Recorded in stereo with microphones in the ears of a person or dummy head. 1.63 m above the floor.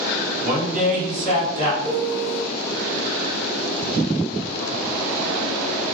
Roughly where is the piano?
Right.